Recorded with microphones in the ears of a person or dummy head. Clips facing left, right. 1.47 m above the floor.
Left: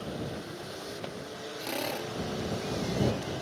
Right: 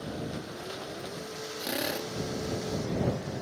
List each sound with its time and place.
1.6 s a drill: 20° right (ahead or behind)